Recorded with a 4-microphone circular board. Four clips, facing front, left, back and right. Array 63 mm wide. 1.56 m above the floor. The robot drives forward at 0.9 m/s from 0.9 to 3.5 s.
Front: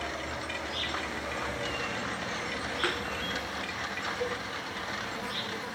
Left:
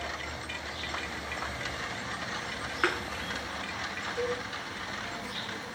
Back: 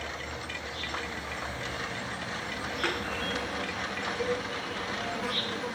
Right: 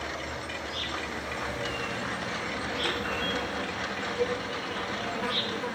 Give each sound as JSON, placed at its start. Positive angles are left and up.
{"t": 0.0, "sound": "an insect", "azimuth_deg": -40, "distance_m": 2.5}
{"t": 2.8, "sound": "a thud", "azimuth_deg": 85, "distance_m": 6.5}
{"t": 4.2, "sound": "a cowbell", "azimuth_deg": 80, "distance_m": 9.5}